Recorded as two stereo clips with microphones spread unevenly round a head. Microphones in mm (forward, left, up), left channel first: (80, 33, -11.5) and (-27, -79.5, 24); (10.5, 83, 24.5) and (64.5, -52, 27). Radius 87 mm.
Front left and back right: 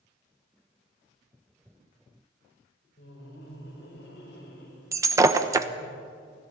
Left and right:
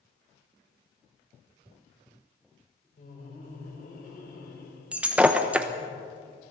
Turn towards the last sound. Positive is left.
turn(degrees=-145)